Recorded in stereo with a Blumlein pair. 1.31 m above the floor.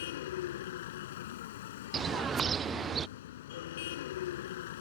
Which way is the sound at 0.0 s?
55° left.